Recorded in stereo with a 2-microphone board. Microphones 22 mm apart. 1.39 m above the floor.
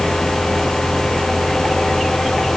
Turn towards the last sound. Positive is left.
No sound to turn to.